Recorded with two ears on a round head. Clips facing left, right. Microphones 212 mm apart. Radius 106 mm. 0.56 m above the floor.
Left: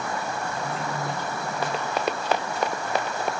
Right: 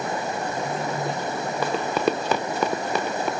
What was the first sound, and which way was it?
Running water, 20° right (ahead or behind).